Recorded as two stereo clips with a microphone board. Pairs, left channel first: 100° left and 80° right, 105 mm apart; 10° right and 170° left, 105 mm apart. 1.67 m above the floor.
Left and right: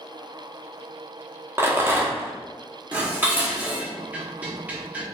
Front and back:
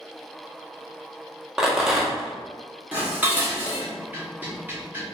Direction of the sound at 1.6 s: 110° right.